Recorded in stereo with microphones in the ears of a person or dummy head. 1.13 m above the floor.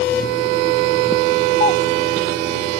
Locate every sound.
1.6 s a doorbell: 35° left (ahead or behind)